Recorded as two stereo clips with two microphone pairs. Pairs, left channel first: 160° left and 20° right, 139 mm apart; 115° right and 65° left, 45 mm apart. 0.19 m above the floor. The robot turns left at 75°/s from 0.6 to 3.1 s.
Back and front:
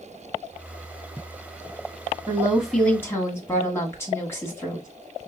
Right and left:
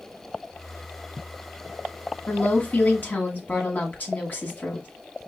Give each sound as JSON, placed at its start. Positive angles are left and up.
{"t": 2.3, "sound": "a woman speaking", "azimuth_deg": -75, "distance_m": 1.4}